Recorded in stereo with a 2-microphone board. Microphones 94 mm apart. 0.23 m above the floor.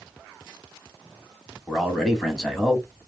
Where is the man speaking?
Centre (ahead or behind), 1.5 m.